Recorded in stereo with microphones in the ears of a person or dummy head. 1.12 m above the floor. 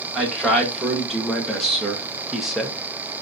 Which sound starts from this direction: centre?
A man speaking, at 0.1 s.